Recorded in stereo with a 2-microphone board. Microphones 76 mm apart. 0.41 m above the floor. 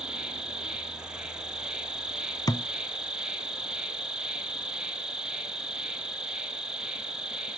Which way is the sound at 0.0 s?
10° right (ahead or behind).